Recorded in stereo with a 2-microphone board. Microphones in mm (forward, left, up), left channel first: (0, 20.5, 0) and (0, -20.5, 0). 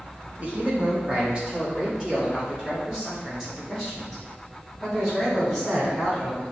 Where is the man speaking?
35° right (ahead or behind), 1.2 m; by 6.4 s 5° right (ahead or behind), 4 m.